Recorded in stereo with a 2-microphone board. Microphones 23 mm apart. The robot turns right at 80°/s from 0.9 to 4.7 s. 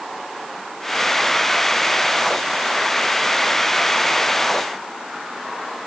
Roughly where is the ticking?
I don't hear ticking.